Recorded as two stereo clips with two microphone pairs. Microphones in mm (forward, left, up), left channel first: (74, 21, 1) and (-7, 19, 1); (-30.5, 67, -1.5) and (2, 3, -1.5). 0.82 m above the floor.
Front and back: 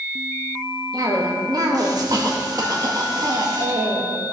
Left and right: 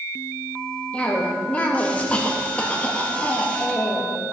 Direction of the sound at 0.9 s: Straight behind.